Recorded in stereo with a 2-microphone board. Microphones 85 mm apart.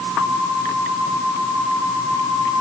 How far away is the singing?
No singing in this recording.